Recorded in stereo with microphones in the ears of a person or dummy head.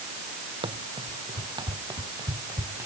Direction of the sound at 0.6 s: 20° right (ahead or behind).